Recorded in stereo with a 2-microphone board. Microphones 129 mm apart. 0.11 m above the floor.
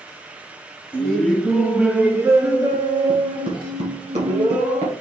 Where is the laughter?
10° left (ahead or behind), 1.4 m; by 4.9 s 55° right (ahead or behind), 2.5 m.